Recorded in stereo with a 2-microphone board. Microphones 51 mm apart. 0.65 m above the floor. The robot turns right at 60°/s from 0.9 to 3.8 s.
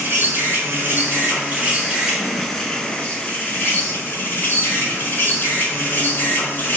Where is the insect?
85° right, 0.7 m; by 6.8 s 85° left, 0.7 m.